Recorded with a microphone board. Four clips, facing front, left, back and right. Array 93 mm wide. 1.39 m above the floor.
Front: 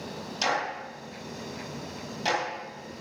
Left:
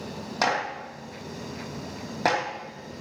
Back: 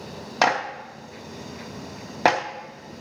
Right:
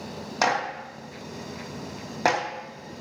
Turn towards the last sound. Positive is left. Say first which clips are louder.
# right 2 dB, back 7 dB
turn(degrees=-175)